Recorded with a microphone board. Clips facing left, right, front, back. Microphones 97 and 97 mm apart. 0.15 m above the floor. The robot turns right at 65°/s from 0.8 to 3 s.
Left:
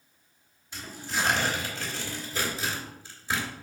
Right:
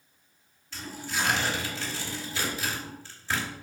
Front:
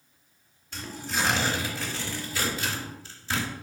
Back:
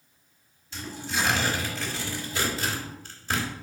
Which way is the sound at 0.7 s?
15° left.